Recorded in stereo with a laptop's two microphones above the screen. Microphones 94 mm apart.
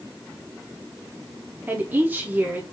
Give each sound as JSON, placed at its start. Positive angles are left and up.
{"t": 1.7, "sound": "a woman speaking", "side_deg": -20, "distance_m": 0.9}